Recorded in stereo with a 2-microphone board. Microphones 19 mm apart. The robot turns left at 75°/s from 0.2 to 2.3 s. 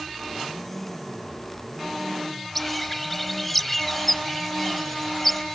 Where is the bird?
10° left (ahead or behind).